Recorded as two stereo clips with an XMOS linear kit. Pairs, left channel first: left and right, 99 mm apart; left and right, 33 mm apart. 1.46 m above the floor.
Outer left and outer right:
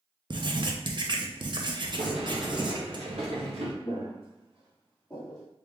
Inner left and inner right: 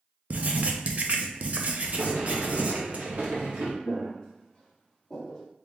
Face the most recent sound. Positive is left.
turn(degrees=5)  # may be behind; listen again after turning